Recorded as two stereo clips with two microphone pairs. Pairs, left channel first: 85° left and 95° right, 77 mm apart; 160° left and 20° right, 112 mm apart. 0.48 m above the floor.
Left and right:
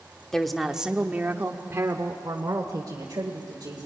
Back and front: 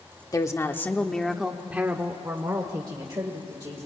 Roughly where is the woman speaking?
Behind.